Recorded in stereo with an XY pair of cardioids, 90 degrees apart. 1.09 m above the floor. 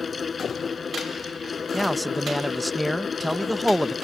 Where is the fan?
35° left.